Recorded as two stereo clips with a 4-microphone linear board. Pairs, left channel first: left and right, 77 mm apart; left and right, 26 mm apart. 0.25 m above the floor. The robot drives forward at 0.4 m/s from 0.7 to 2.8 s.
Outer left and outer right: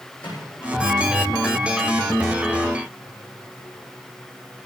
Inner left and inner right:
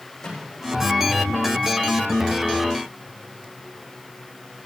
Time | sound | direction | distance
0.2 | a microwave | 20° left (ahead or behind) | 10 m